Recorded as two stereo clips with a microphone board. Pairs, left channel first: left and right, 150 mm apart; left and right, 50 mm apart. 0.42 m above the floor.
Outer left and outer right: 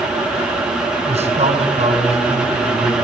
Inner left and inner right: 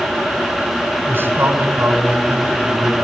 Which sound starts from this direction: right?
A man speaking, at 1.1 s.